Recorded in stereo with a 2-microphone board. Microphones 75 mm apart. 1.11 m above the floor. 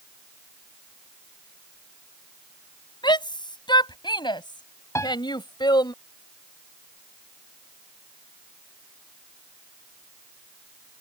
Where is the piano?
40° left (ahead or behind).